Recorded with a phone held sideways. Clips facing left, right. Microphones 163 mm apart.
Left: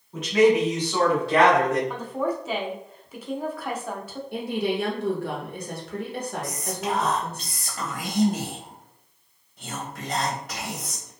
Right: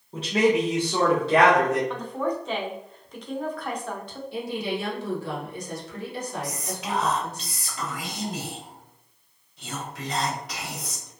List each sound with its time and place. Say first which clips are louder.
0.1 s a man speaking: left 3 dB; 30° right (ahead or behind), 0.9 m; by 1.8 s 20° right (ahead or behind), 1.5 m
1.9 s a woman speaking: left 1 dB; 5° left (ahead or behind), 0.6 m
4.3 s a woman speaking: left 3 dB; 55° left (ahead or behind), 0.8 m
6.4 s whispering: left 3 dB; 50° left (ahead or behind), 0.8 m